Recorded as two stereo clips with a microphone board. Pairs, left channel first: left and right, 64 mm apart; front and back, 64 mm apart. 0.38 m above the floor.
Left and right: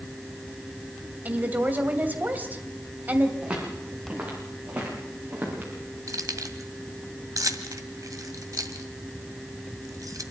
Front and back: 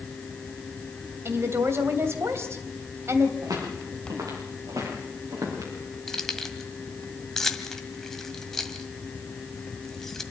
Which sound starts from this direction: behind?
Footsteps, at 3.4 s.